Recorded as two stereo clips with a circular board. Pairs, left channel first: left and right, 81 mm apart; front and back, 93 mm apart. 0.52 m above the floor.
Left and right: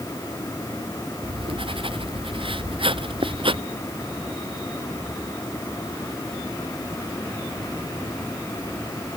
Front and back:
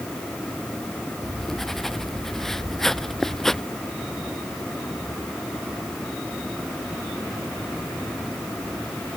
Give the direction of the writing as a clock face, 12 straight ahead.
3 o'clock.